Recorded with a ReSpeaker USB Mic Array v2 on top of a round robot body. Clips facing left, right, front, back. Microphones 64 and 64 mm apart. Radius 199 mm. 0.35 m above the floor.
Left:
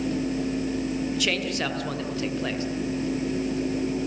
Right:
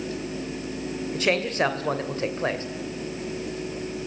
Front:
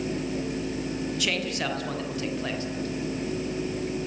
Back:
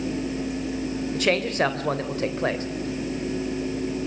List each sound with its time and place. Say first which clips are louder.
1.1 s a man speaking: right 3 dB, back 10 dB; 140° right, 3 m